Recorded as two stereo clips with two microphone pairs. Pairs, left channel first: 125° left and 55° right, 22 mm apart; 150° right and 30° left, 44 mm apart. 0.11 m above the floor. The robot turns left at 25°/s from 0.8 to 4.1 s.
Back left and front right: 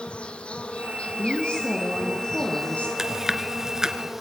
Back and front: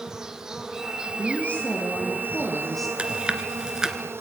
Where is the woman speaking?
165° left, 5 m; by 2.9 s 125° left, 5 m.